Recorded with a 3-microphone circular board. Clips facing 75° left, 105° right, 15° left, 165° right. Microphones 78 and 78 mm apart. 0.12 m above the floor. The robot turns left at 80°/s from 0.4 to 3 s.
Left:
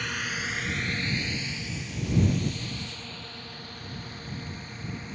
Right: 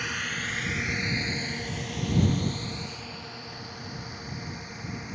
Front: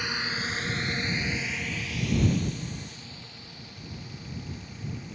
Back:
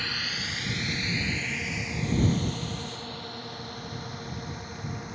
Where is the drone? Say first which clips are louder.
Even, front 3 dB; 30° right; by 5.2 s 175° left.